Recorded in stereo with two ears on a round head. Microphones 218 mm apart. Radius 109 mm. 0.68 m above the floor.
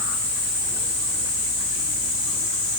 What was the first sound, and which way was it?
Only background noise.